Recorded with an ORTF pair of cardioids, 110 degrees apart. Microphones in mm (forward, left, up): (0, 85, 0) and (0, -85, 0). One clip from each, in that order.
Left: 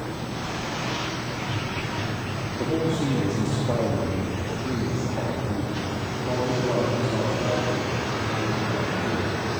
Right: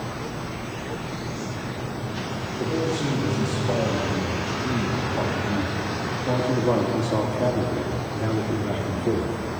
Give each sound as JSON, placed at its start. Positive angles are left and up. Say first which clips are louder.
{"t": 2.6, "sound": "a man speaking", "louder": "even", "azimuth_deg": 15, "distance_m": 2.5}